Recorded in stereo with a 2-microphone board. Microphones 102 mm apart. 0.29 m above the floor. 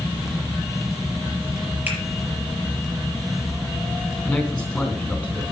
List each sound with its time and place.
1.9 s a finger snap: 20° right (ahead or behind), 4.5 m
4.2 s a man speaking: 5° left (ahead or behind), 3.5 m